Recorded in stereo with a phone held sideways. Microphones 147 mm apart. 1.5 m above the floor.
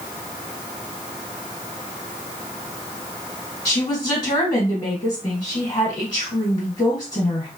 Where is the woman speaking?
35° left (ahead or behind), 1.3 m.